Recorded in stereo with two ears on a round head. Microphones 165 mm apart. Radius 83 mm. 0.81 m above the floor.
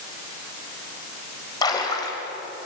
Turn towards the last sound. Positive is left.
turn(degrees=20)  # may be behind; listen again after turning